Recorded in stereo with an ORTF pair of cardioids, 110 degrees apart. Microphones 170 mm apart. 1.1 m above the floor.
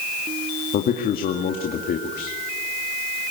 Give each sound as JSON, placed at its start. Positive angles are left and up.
{"t": 0.7, "sound": "a man speaking", "azimuth_deg": 60, "distance_m": 2.5}